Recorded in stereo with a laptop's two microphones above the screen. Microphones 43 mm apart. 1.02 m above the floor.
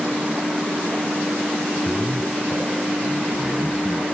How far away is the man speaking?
About 5.5 m.